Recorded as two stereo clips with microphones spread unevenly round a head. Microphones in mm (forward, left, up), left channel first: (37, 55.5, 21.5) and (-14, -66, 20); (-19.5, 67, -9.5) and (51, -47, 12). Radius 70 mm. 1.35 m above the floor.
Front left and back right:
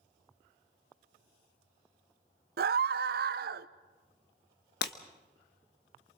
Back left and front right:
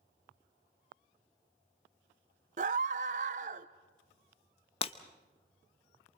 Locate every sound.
2.6 s a scream: 100° right, 0.7 m
4.8 s breaking glass: 75° left, 0.9 m